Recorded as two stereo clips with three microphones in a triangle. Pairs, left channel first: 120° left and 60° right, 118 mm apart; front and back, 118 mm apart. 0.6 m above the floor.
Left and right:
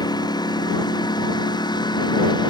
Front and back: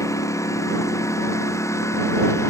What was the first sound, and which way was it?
A lawn mower, 65° left.